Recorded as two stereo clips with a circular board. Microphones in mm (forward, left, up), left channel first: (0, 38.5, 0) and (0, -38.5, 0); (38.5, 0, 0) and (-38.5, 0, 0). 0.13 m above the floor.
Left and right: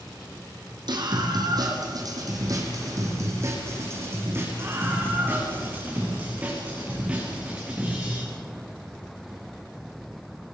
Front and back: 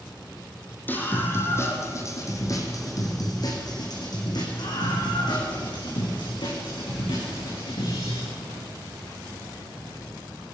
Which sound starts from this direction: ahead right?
A scream, at 0.9 s.